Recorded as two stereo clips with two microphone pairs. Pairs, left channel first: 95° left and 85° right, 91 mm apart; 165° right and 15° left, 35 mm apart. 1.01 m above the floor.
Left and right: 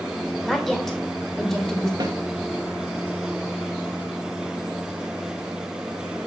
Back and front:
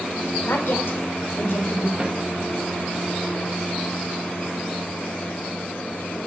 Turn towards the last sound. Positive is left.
turn(degrees=-55)